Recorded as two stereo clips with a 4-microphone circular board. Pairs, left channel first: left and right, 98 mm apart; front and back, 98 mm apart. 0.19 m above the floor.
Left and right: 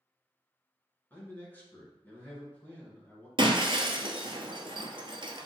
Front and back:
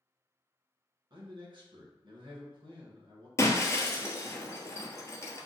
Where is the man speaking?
155° left, 2 m.